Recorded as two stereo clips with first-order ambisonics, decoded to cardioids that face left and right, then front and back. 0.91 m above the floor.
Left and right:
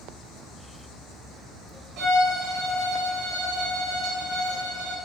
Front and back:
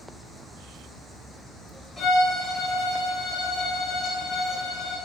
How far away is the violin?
About 0.9 m.